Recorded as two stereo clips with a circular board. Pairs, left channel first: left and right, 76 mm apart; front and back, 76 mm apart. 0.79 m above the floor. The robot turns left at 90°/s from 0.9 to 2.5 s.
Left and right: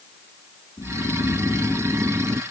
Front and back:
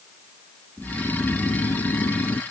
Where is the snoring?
90° left; by 2.4 s 50° right.